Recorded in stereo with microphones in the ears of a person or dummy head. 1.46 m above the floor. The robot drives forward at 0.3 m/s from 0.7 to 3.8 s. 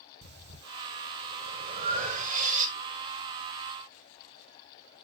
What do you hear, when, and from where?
0.2 s breathing: 55° right (ahead or behind), 1.2 m; by 2.7 s 40° right (ahead or behind), 1.6 m